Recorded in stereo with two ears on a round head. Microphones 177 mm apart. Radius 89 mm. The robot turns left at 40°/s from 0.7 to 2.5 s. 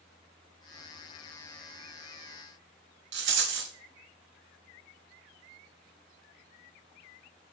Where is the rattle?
65° right (ahead or behind), 0.6 m.